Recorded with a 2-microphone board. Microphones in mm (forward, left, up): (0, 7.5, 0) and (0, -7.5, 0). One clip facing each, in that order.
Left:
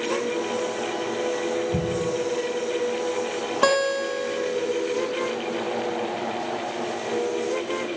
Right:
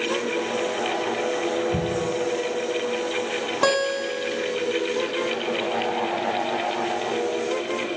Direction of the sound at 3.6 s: 10° left (ahead or behind).